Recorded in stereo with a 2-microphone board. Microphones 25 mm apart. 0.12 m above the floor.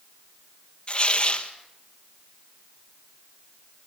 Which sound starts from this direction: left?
Tearing paper, at 0.9 s.